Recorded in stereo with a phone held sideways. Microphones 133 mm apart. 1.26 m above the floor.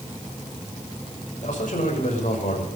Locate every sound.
1.4 s a man speaking: 75° left (ahead or behind), 5.5 m